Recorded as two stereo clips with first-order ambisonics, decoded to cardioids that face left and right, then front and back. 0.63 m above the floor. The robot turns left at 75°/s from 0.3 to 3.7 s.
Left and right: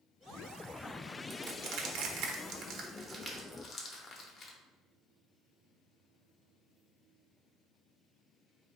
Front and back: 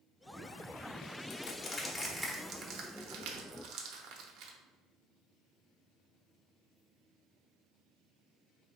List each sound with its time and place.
1.3 s crushing: 35° right, 0.8 m; by 4.5 s 145° left, 0.8 m